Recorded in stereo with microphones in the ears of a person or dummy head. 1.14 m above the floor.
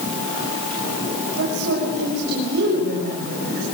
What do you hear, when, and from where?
1.4 s a woman speaking: 50° right (ahead or behind), 6 m